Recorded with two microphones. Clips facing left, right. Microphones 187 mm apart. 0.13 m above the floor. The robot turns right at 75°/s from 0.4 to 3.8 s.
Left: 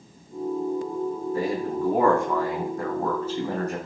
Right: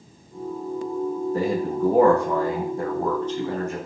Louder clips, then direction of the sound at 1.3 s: Right 2 dB; 140° right.